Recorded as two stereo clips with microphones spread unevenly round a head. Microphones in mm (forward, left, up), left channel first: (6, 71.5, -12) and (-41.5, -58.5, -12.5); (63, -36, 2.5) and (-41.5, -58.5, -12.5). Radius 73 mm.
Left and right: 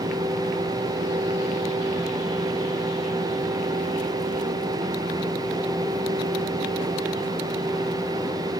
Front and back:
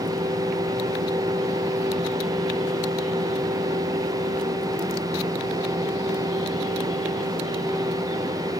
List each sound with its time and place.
Only background noise.